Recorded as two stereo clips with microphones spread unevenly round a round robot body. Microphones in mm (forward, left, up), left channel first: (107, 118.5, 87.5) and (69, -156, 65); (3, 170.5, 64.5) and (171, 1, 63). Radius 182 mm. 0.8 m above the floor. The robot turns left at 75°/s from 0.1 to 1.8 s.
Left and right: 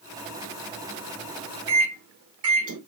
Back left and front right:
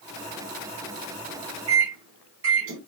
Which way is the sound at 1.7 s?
60° right.